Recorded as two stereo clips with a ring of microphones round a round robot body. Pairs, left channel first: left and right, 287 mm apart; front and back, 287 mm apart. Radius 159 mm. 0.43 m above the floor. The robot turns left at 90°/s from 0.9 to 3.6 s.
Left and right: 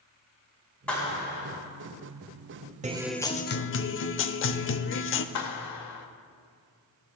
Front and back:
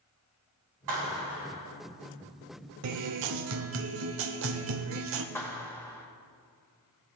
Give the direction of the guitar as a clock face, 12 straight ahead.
5 o'clock.